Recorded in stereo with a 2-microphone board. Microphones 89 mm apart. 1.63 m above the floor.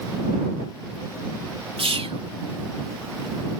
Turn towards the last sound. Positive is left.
turn(degrees=-85)